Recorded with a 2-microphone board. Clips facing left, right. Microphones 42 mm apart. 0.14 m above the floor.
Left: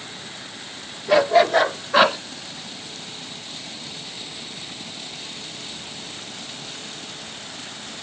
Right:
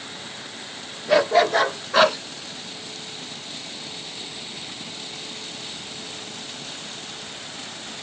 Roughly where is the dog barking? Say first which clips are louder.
Left 2 dB; centre.